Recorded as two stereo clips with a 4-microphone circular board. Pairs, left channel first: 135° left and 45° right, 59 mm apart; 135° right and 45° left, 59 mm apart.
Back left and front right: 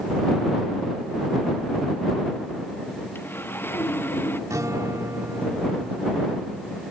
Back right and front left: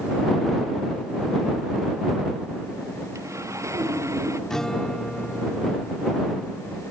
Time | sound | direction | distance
3.1 | sawing | 80° left | ?
4.5 | a guitar | 55° right | ?